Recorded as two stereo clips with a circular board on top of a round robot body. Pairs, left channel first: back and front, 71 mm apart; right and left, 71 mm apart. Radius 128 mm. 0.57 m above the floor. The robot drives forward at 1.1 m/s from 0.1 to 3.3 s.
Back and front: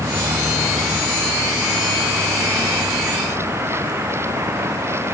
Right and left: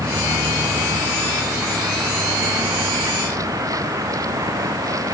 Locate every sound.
0.0 s a vehicle: 50° left; by 5.1 s 55° left